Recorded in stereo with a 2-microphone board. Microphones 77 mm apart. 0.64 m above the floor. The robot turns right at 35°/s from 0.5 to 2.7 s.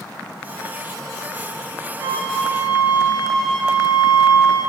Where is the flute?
30° right (ahead or behind), 1.3 m; by 4.6 s 10° right (ahead or behind), 1.3 m.